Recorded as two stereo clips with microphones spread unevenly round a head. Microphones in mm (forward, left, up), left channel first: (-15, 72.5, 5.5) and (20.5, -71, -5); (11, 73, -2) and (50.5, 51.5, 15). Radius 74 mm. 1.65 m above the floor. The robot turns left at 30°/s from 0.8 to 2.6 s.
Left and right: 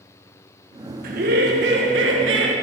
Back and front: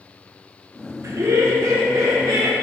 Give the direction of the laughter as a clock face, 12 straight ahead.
1 o'clock.